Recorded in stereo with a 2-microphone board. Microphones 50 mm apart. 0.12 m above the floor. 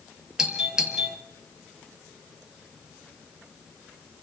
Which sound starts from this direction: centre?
A doorbell, at 0.4 s.